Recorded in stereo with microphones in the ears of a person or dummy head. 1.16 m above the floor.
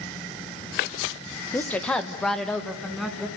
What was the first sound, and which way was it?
A woman speaking, 10° left (ahead or behind).